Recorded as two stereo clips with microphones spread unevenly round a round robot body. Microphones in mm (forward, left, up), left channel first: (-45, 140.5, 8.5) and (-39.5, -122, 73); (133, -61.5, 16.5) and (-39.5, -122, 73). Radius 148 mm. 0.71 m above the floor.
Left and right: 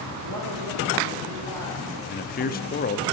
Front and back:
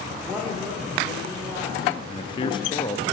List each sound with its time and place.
0.2 s a woman speaking: 65° right, 2.5 m; by 2.0 s 80° right, 4 m
2.1 s a man speaking: 60° left, 0.9 m